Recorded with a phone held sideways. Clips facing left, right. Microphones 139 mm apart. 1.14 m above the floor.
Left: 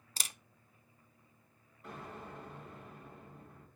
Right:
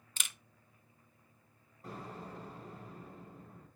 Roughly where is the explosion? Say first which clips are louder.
Right 1 dB; right.